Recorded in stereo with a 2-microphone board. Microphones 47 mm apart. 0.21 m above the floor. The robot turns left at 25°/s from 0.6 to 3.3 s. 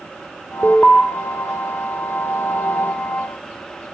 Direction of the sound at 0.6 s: 15° left (ahead or behind).